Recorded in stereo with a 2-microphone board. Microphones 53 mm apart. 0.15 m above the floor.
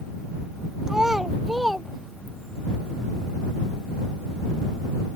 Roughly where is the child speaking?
Centre.